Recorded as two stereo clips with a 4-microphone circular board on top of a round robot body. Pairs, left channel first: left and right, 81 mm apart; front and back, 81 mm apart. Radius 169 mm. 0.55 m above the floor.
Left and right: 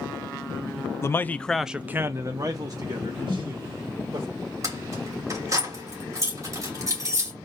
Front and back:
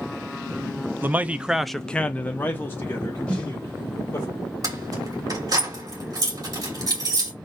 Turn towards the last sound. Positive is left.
turn(degrees=-140)